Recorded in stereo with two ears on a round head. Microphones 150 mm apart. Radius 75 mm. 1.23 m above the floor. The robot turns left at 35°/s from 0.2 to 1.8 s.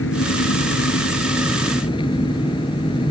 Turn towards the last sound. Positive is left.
turn(degrees=30)